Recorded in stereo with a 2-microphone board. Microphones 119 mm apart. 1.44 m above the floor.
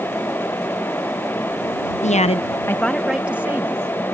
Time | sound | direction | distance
2.0 | a woman speaking | 80° left | ?